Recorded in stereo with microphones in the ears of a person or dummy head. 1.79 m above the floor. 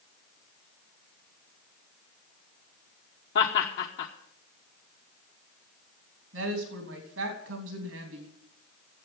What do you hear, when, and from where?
3.4 s laughter: 65° left (ahead or behind), 1.3 m
6.3 s a woman speaking: 85° right, 3.5 m